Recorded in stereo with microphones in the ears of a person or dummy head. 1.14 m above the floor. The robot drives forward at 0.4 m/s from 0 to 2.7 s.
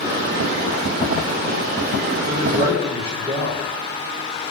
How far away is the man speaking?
About 4.5 m.